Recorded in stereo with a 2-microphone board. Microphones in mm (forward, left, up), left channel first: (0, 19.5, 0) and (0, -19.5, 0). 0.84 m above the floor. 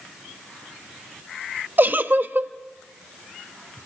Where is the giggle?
50° right (ahead or behind), 0.8 m.